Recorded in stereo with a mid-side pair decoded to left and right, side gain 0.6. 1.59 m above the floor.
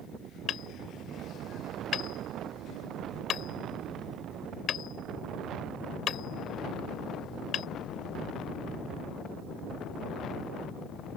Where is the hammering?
50° left.